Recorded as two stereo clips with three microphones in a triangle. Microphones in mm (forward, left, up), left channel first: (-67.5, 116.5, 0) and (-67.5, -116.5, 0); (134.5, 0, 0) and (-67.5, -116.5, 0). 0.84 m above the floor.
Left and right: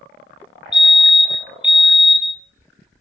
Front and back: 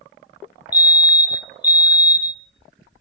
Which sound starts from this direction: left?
A fire alarm, at 0.7 s.